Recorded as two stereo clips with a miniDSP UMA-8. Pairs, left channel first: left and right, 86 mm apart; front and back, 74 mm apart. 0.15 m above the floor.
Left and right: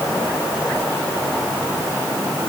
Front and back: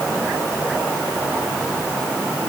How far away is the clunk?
I don't hear a clunk.